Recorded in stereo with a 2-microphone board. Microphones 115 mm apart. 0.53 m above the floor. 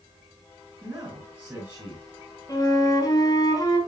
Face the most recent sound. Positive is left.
turn(degrees=35)  # may be behind; listen again after turning